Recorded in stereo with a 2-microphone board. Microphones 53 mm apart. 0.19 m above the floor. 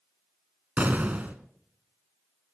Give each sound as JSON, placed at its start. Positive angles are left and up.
{"t": 0.8, "sound": "an explosion", "side_deg": -30, "distance_m": 1.3}